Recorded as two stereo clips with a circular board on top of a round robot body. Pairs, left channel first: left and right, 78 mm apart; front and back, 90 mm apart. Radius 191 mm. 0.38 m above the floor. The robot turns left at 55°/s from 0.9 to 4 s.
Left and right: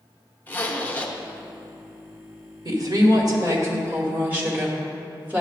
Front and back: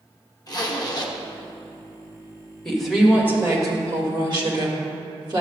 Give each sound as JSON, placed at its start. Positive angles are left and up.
{"t": 0.5, "sound": "a zipper", "azimuth_deg": 30, "distance_m": 1.2}
{"t": 2.6, "sound": "a woman speaking", "azimuth_deg": -80, "distance_m": 2.0}